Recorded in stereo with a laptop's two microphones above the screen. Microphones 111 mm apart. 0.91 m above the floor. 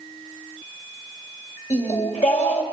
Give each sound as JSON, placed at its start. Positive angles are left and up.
{"t": 1.7, "sound": "singing", "side_deg": 80, "distance_m": 2.5}